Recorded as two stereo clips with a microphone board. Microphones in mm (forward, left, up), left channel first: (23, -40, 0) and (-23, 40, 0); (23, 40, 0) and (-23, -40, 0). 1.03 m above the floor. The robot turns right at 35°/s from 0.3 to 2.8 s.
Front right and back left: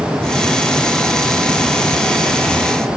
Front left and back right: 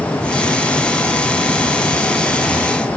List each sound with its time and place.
Only background noise.